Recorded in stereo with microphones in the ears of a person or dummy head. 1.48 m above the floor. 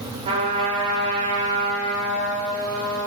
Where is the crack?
I don't hear a crack.